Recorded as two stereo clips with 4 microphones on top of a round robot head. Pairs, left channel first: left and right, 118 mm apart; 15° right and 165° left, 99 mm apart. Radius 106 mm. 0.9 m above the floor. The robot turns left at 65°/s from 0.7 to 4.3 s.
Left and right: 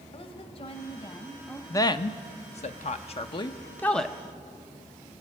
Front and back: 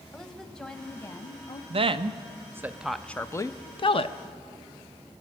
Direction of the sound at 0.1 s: 70° left.